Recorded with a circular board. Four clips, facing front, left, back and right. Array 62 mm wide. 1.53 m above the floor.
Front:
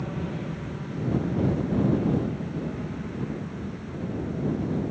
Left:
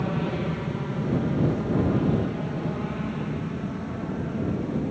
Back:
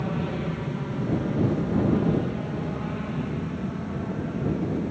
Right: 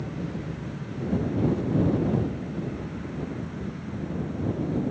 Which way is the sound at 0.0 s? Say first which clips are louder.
Left 6 dB, back 4 dB; 115° left.